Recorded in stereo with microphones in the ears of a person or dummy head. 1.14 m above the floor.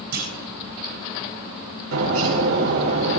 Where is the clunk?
55° right (ahead or behind), 9.5 m.